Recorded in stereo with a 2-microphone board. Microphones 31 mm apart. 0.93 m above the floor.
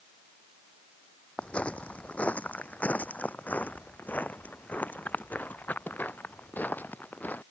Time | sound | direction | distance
1.4 | footsteps | 40° left (ahead or behind) | ?